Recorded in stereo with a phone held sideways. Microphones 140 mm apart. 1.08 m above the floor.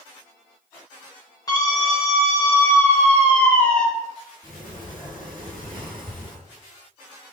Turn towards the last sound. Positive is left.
turn(degrees=-30)  # may be behind; listen again after turning